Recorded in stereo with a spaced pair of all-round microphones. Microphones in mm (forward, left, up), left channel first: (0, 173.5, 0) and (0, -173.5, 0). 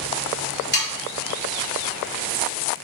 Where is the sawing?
30° left (ahead or behind), 1.4 m.